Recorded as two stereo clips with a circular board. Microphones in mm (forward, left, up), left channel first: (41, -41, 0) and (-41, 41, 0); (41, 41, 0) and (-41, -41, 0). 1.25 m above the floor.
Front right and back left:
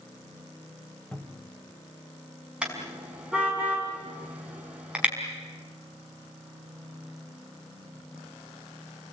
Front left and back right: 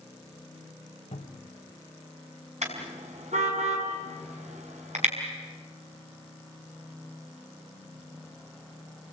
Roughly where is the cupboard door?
Ahead left.